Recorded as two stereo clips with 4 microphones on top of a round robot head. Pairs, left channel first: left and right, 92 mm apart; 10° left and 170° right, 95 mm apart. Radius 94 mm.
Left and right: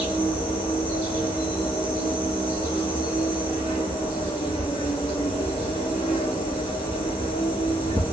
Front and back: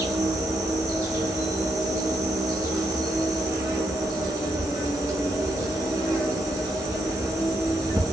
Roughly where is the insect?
Behind left.